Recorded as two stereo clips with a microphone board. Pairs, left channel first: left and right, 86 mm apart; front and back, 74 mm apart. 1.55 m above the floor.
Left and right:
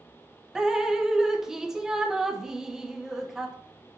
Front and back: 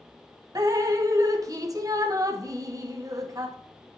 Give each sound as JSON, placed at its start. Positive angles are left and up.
{"t": 0.6, "sound": "dripping", "azimuth_deg": -170, "distance_m": 0.7}